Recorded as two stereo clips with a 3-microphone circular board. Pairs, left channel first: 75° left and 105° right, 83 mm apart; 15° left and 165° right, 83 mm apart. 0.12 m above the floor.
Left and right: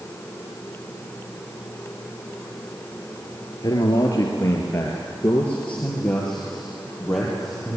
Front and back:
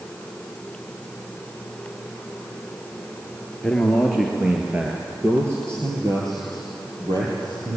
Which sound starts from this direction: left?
A man speaking, at 3.6 s.